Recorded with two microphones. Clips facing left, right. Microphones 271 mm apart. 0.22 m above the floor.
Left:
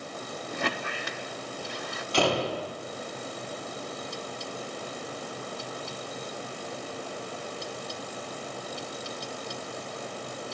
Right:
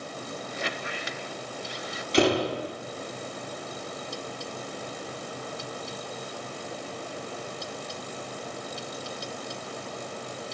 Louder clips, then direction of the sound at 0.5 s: Left 5 dB; 60° left (ahead or behind).